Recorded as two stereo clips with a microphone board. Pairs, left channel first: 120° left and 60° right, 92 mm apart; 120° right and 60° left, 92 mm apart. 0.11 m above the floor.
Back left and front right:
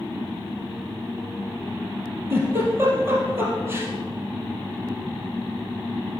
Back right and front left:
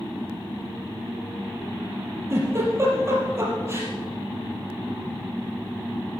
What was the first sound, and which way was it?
A giggle, straight ahead.